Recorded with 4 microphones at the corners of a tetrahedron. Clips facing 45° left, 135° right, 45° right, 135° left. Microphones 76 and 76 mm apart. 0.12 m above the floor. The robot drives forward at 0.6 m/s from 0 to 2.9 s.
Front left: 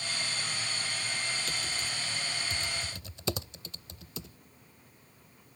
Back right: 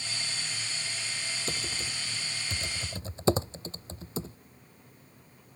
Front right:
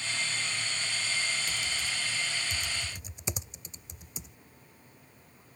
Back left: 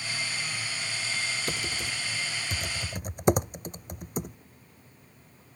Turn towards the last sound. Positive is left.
turn(degrees=170)